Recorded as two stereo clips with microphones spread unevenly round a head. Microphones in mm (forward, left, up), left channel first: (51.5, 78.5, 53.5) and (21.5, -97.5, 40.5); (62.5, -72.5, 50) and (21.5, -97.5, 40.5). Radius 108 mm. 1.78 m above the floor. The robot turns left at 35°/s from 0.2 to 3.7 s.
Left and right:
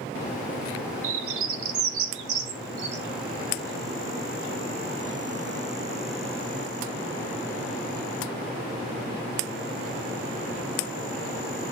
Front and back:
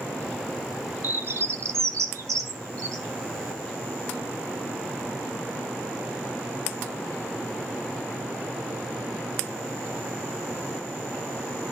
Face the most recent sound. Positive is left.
turn(degrees=170)